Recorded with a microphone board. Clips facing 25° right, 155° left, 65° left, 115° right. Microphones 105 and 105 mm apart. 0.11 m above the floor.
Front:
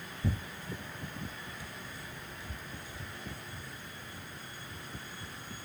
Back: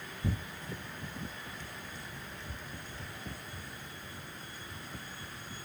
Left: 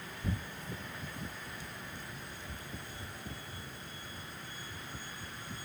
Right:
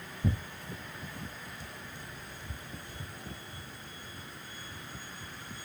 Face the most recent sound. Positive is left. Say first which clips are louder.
# front 1 dB, right 5 dB
turn(degrees=-105)